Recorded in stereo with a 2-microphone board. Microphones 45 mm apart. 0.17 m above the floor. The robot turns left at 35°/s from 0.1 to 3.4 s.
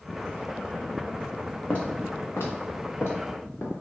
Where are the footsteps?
45° left (ahead or behind), 0.8 m; by 3.7 s 50° left (ahead or behind), 1.7 m.